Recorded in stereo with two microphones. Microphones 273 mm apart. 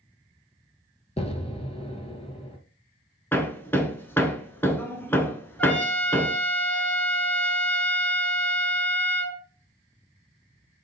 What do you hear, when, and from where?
1.2 s an explosion: 25° left (ahead or behind), 0.6 m
3.3 s hammering: 10° left (ahead or behind), 0.5 m
5.6 s a trumpet: 5° left (ahead or behind), 1.0 m